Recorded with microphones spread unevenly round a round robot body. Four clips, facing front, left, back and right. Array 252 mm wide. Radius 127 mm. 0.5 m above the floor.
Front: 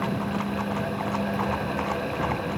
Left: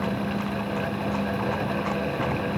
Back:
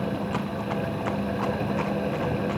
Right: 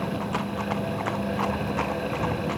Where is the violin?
I don't hear a violin.